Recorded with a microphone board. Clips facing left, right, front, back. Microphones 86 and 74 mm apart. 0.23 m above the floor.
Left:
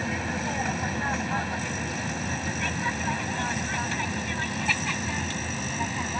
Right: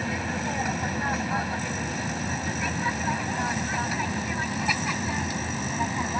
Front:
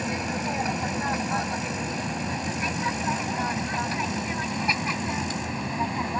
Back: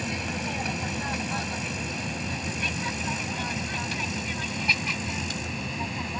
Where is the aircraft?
5° right; by 6.2 s 25° right.